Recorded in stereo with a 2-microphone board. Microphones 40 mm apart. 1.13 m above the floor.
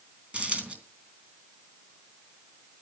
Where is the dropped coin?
25° right (ahead or behind), 3 m.